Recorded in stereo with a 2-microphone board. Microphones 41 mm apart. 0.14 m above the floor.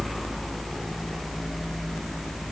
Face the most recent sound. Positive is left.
No sound to turn to.